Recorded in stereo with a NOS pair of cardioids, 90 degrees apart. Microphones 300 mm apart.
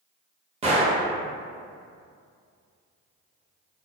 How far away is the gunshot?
About 0.7 m.